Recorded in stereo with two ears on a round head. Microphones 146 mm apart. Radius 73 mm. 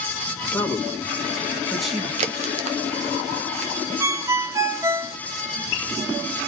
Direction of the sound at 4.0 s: 20° right (ahead or behind).